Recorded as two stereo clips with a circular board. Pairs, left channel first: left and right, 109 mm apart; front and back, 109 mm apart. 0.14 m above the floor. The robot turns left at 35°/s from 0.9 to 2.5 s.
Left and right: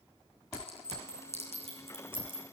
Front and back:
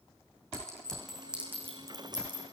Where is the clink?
85° right, 7 m; by 2.4 s 140° right, 7 m.